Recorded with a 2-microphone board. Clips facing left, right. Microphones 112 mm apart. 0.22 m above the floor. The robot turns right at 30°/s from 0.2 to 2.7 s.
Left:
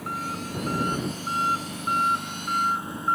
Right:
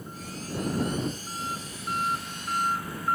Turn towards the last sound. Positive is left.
turn(degrees=160)